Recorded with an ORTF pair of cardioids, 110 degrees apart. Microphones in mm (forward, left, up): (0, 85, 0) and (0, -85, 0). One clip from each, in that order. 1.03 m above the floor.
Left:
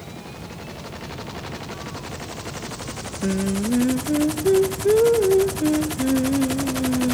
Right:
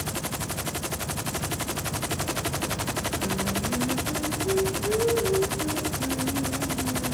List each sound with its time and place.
3.2 s singing: 50° left, 0.6 m